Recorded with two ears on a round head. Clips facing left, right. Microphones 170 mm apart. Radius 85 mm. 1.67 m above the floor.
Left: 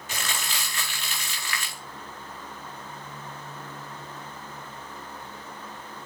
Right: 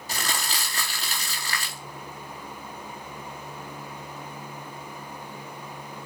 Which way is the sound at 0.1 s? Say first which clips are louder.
Right 2 dB; 35° right (ahead or behind).